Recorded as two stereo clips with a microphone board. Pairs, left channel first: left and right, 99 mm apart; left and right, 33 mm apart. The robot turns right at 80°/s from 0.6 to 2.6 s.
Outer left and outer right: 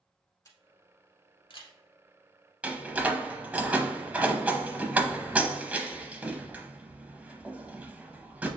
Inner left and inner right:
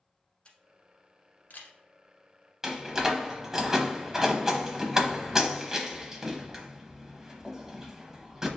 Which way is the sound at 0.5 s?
35° left (ahead or behind).